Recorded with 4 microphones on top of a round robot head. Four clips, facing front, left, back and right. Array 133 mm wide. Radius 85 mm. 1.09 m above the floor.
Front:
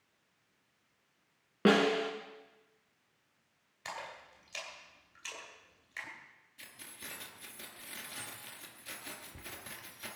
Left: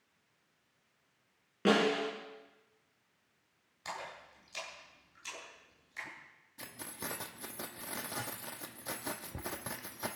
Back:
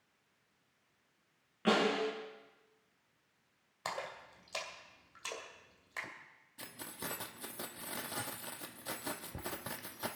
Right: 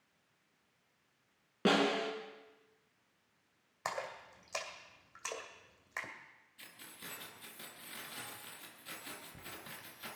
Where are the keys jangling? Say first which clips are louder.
Left 10 dB, back 7 dB; 130° left, 1.0 m.